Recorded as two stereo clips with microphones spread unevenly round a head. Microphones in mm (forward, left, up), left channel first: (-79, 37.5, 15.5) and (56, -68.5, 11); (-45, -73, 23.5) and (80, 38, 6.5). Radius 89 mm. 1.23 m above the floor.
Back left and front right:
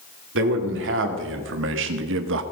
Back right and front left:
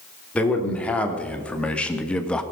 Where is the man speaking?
55° right, 3 m.